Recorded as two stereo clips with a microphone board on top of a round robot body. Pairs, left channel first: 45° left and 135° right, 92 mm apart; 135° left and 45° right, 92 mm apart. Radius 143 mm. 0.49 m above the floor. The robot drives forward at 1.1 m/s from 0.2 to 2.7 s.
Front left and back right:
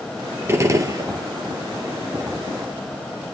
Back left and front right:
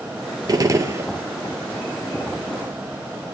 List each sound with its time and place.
0.5 s a gunshot: 80° right, 2 m; by 1.1 s 100° right, 2 m